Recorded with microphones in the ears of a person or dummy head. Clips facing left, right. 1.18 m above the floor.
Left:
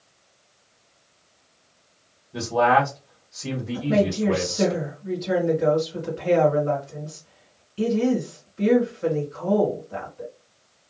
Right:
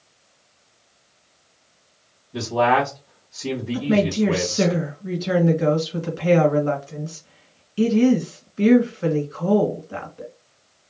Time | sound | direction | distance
2.3 | a man speaking | 5° right (ahead or behind) | 1.5 m
3.7 | a woman speaking | 60° right (ahead or behind) | 1.5 m